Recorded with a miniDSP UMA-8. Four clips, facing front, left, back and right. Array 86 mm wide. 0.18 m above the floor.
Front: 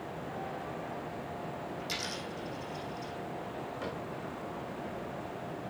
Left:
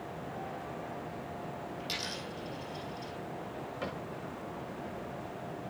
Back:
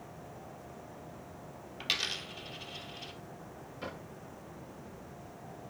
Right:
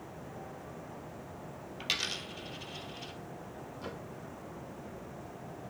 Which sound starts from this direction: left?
A cupboard door, at 3.8 s.